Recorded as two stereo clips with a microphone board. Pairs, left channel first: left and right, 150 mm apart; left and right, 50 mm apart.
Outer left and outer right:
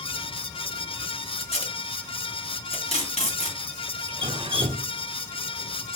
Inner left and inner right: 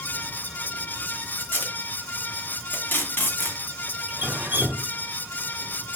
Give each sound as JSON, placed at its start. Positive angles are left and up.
{"t": 1.4, "sound": "tape being pulled", "side_deg": 45, "distance_m": 2.5}
{"t": 4.1, "sound": "dripping", "side_deg": -35, "distance_m": 0.6}